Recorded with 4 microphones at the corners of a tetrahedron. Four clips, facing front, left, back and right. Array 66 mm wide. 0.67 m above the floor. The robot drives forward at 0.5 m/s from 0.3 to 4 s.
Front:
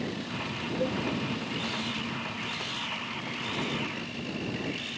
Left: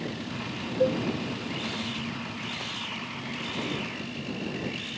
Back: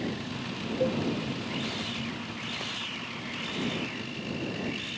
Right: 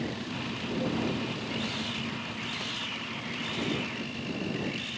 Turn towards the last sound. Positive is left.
turn(degrees=115)